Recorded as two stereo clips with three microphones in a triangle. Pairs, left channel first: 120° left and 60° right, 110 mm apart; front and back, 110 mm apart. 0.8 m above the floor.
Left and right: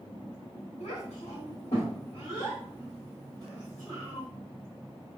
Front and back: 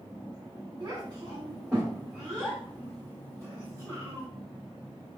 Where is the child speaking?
130° left, 1.2 m; by 4.3 s 60° left, 2.5 m.